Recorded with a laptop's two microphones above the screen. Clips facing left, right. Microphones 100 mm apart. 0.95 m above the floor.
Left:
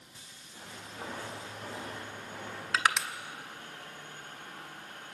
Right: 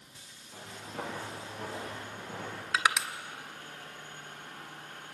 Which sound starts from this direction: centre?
Crushing, at 2.7 s.